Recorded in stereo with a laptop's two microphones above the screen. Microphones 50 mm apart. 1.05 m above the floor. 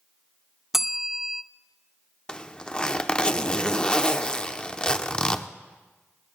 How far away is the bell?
About 0.6 m.